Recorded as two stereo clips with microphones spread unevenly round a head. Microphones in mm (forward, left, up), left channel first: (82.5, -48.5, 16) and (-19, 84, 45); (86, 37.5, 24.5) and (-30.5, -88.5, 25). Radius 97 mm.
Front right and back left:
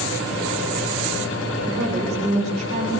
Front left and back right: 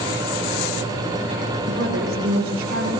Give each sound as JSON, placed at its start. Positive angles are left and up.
{"t": 1.7, "sound": "a woman speaking", "azimuth_deg": -175, "distance_m": 9.0}